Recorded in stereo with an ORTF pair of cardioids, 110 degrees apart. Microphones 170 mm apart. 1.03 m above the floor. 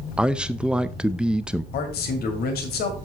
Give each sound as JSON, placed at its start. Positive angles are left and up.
{"t": 0.2, "sound": "a man speaking", "azimuth_deg": -5, "distance_m": 0.6}
{"t": 1.7, "sound": "a man speaking", "azimuth_deg": 70, "distance_m": 2.5}